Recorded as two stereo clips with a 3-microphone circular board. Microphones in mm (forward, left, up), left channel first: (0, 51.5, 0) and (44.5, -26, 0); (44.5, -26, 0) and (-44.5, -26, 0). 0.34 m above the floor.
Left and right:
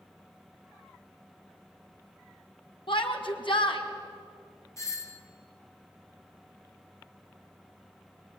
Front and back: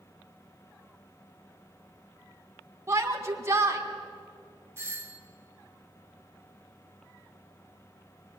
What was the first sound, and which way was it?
A shout, 125° left.